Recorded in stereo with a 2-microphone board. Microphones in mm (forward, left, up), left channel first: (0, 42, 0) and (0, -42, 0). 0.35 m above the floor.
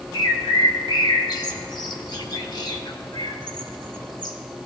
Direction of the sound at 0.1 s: 60° left (ahead or behind).